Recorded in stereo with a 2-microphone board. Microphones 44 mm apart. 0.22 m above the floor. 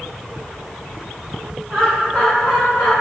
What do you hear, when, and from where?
1.7 s laughter: 25° left (ahead or behind), 1.1 m; by 2.9 s 30° left (ahead or behind), 1.4 m